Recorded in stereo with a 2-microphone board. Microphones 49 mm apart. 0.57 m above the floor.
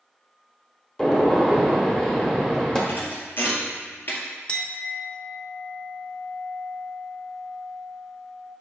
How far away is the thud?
About 1.8 m.